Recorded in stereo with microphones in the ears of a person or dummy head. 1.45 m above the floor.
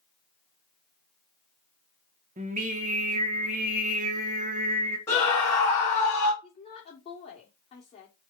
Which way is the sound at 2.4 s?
40° right (ahead or behind).